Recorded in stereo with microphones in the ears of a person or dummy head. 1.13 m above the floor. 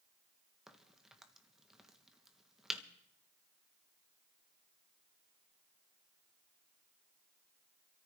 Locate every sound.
0.7 s a crack: 5° right (ahead or behind), 1.4 m